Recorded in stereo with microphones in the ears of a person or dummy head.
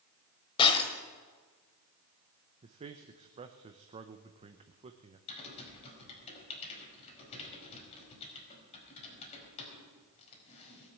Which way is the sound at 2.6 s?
30° right (ahead or behind).